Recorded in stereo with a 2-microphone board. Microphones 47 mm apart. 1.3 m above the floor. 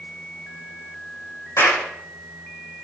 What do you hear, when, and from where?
1.6 s a clap: 65° left (ahead or behind), 5.5 m